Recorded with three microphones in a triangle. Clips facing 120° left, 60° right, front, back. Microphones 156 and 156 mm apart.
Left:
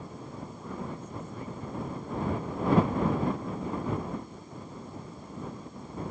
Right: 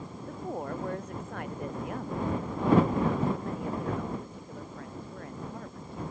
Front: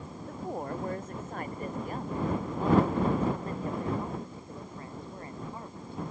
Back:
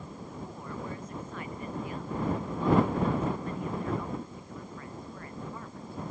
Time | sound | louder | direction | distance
0.3 | a woman speaking | right 9 dB, front 8 dB | 35° right | ?